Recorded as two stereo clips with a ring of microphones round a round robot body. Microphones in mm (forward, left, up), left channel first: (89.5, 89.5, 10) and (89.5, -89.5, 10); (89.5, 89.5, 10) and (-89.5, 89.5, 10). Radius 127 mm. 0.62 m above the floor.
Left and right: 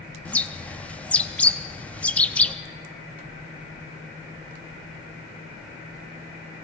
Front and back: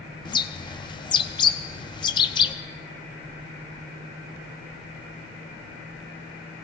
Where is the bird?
15° left, 0.6 m.